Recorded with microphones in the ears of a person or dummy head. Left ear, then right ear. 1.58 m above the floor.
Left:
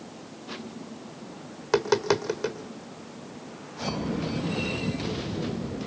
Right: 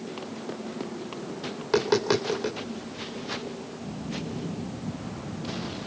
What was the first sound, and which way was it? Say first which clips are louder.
Tapping: even; 30° left (ahead or behind).